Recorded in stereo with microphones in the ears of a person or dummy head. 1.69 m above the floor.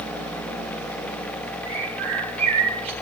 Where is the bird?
40° right (ahead or behind), 6 m.